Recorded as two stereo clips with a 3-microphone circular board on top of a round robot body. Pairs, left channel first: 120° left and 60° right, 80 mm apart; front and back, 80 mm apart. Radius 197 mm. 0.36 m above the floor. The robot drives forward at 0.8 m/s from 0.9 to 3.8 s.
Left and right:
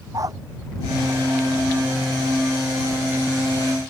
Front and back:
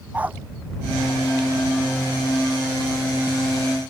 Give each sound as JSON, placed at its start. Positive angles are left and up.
{"t": 0.1, "sound": "a dog barking", "azimuth_deg": -110}